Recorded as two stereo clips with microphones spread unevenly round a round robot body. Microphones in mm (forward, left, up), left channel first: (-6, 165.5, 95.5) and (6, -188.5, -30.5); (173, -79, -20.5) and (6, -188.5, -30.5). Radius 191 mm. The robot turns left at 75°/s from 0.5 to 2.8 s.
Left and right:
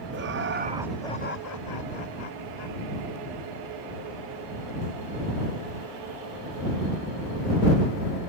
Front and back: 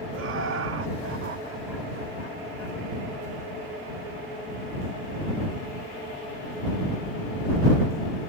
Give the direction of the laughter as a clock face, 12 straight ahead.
5 o'clock.